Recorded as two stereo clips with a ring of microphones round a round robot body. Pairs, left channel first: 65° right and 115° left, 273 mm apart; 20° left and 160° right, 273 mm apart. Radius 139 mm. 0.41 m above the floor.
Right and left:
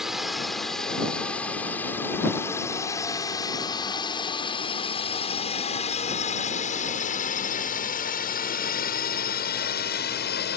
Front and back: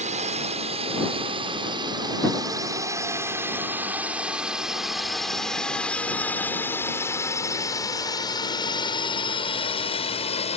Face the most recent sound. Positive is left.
turn(degrees=-35)